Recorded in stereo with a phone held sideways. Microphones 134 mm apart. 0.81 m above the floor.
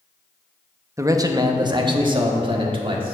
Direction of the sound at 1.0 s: 25° right (ahead or behind).